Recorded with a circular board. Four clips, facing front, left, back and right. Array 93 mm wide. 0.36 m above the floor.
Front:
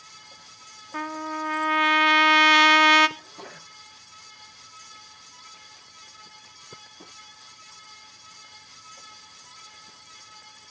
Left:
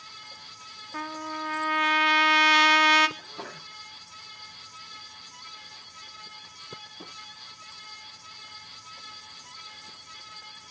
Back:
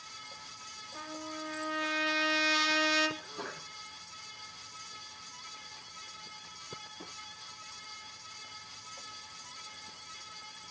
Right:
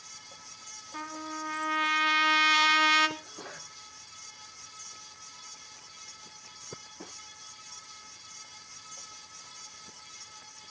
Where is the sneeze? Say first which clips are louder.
Left 4 dB, back 1 dB; 80° left, 8.5 m.